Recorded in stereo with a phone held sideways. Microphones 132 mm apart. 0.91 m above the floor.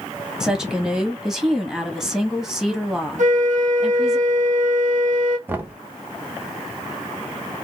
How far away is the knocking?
About 0.6 m.